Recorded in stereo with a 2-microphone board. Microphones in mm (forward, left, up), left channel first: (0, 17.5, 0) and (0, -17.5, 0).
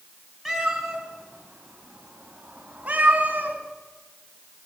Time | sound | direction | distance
0.5 | a cat meowing | centre (ahead or behind) | 5.5 m